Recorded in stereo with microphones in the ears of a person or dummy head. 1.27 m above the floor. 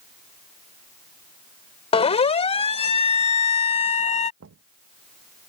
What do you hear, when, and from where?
1.9 s a siren: 30° left (ahead or behind); by 4.3 s 35° left (ahead or behind)
4.4 s knocking: 85° right